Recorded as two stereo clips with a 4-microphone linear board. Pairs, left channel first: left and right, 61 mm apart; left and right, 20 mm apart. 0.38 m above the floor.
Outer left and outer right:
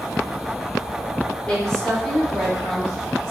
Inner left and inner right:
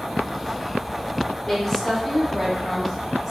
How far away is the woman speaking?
About 1.1 m.